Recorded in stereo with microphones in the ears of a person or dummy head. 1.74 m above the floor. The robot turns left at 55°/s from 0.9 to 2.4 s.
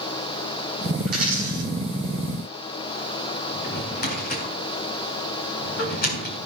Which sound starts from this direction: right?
A dropped coin, at 1.1 s.